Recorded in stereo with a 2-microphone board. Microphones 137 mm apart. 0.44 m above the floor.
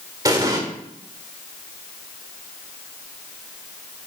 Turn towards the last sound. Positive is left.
turn(degrees=-25)  # may be behind; listen again after turning